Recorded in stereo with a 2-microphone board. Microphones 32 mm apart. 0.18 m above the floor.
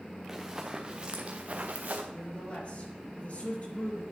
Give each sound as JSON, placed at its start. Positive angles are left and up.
{"t": 0.3, "sound": "running footsteps", "side_deg": -10, "distance_m": 1.6}
{"t": 2.1, "sound": "a man speaking", "side_deg": 50, "distance_m": 4.0}